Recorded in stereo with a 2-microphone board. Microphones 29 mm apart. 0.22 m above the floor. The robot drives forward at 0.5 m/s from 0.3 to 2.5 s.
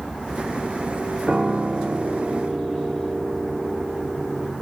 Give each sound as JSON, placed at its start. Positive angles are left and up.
{"t": 1.3, "sound": "a piano", "side_deg": -30, "distance_m": 3.0}